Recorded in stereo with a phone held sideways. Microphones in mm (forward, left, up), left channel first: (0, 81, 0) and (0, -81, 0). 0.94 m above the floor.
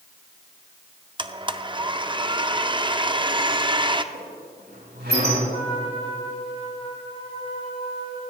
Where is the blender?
30° right (ahead or behind), 0.5 m.